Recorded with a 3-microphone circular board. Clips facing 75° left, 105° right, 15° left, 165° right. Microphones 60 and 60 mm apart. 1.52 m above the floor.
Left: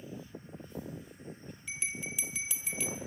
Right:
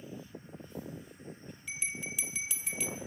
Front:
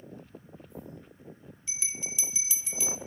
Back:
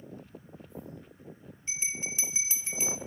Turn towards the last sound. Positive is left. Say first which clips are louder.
# even, back 3 dB
turn(degrees=165)